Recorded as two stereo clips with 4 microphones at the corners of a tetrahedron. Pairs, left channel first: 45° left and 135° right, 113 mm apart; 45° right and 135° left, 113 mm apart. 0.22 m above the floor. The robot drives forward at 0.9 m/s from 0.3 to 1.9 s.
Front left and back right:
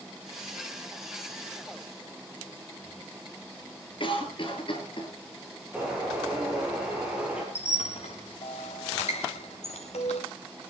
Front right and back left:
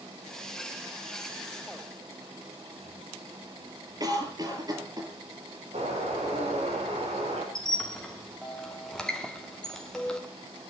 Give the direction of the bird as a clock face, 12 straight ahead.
7 o'clock.